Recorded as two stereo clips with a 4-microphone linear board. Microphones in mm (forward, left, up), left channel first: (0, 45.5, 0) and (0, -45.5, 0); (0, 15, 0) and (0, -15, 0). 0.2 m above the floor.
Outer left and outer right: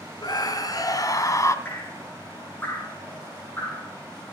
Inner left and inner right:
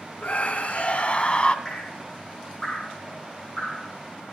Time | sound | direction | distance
0.2 | a scream | 50° left (ahead or behind) | 2.0 m
1.6 | dripping | 20° left (ahead or behind) | 7.5 m